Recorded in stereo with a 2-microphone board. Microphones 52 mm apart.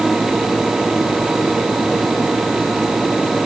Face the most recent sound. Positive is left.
No sound to turn to.